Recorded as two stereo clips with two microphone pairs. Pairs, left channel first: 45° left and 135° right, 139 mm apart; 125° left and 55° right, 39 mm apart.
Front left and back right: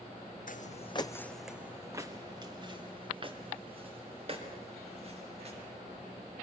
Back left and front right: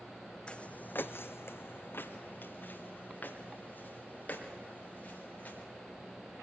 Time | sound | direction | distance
0.5 | footsteps | 60° left | 0.8 m